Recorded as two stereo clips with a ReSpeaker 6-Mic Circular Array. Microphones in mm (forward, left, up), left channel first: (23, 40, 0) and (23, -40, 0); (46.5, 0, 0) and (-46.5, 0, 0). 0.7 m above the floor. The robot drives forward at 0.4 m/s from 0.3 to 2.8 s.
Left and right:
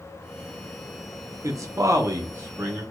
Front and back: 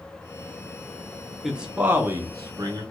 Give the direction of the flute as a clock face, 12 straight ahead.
I don't hear a flute.